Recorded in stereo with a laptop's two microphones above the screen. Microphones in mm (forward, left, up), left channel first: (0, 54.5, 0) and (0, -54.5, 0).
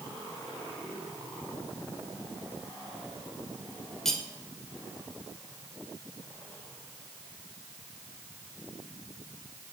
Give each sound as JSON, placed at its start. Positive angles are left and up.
{"t": 4.0, "sound": "cutlery clinking", "side_deg": 5, "distance_m": 2.5}